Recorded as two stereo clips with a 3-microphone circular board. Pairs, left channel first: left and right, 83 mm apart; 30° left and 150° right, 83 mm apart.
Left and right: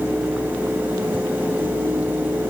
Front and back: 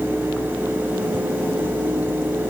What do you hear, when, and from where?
Only background noise.